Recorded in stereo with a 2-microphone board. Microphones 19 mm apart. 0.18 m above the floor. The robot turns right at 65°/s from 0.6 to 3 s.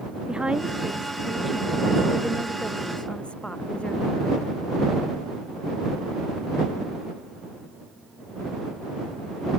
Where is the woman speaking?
55° right; by 4.5 s 100° left.